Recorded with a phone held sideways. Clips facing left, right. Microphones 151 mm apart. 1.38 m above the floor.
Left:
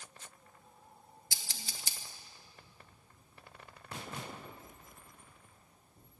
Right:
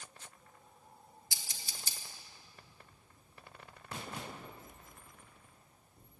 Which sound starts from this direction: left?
Scissors, at 1.3 s.